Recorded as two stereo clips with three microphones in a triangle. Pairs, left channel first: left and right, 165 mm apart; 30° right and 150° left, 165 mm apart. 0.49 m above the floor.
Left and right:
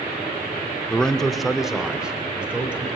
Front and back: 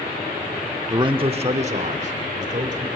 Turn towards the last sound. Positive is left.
turn(degrees=-170)